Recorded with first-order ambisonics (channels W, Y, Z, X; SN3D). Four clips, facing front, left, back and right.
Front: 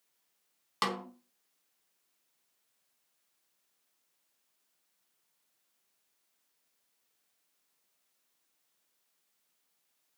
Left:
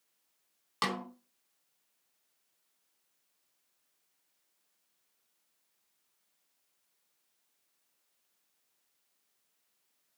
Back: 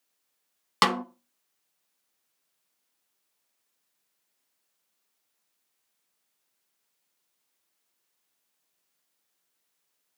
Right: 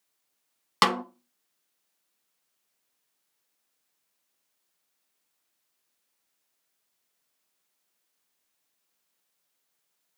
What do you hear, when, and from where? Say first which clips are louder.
0.8 s a snare drum: right 10 dB, back 10 dB; 130° right, 0.7 m